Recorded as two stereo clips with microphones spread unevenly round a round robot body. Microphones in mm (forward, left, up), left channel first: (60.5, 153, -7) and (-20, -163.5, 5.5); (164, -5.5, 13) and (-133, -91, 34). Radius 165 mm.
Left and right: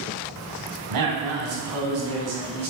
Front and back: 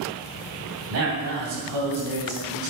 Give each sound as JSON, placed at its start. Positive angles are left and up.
{"t": 0.9, "sound": "a man speaking", "azimuth_deg": -125, "distance_m": 3.0}